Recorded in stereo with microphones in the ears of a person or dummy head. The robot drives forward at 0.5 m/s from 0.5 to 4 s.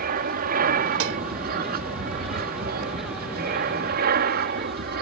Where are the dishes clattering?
75° right (ahead or behind).